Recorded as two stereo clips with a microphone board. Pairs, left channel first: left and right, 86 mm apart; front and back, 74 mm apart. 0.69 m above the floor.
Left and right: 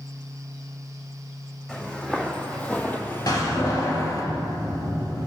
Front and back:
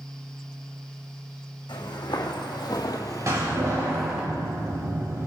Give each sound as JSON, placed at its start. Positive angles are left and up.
{"t": 1.7, "sound": "footsteps", "azimuth_deg": 10, "distance_m": 2.5}
{"t": 3.3, "sound": "a door slam", "azimuth_deg": 135, "distance_m": 3.0}